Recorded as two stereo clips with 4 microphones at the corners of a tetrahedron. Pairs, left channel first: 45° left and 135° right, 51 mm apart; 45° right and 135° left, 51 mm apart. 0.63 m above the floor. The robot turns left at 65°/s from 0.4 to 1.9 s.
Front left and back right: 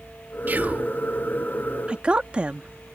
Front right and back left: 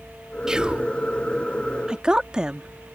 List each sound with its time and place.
0.5 s whispering: 155° right; by 0.9 s 175° left
1.9 s a woman speaking: 175° right